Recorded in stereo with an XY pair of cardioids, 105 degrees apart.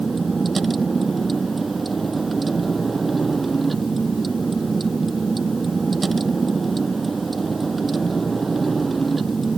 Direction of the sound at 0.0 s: 25° right.